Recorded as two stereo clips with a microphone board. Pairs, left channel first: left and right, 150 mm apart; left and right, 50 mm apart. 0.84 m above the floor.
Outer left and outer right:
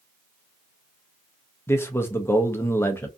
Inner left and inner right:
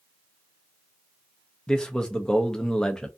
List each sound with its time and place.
1.7 s a man speaking: 15° left (ahead or behind), 0.5 m